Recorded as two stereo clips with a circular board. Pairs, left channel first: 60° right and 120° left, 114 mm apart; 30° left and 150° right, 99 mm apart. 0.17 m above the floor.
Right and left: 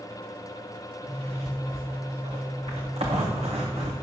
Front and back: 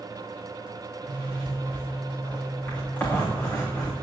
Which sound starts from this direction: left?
A zipper, at 1.0 s.